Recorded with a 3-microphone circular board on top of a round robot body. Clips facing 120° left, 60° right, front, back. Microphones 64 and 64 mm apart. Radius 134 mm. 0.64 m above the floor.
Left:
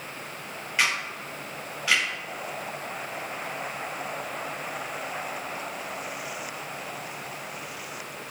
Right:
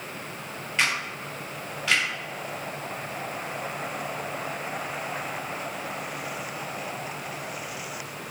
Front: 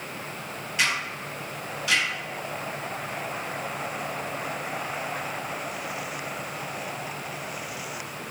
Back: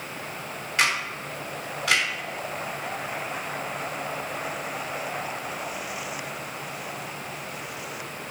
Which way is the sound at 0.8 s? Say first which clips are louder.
Even, back 2 dB; 160° right.